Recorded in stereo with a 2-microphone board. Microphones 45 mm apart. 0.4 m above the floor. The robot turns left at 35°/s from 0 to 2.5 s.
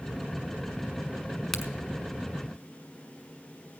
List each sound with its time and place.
1.5 s a crack: 5° left (ahead or behind), 1.4 m; by 1.7 s centre (ahead or behind), 1.4 m